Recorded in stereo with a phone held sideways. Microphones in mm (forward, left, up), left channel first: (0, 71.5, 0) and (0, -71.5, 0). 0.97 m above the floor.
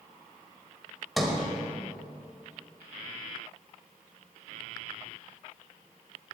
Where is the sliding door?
Centre (ahead or behind), 1.6 m.